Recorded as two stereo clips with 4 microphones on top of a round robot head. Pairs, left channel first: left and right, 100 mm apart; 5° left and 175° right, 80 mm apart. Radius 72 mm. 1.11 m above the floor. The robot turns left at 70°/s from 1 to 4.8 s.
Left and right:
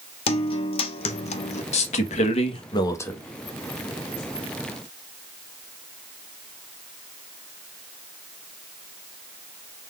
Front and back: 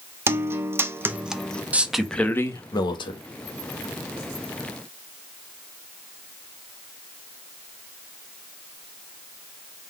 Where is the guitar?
125° left, 0.7 m; by 1.6 s 80° left, 0.7 m.